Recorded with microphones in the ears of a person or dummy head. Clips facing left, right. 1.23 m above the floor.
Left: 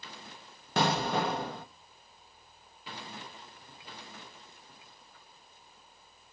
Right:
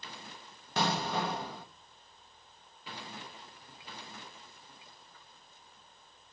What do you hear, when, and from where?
0.8 s an explosion: 65° left (ahead or behind), 1.1 m